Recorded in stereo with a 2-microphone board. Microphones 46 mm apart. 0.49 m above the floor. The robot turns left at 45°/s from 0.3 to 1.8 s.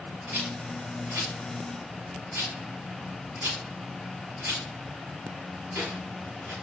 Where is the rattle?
45° right (ahead or behind), 2.5 m; by 6.5 s 50° right (ahead or behind), 2.5 m.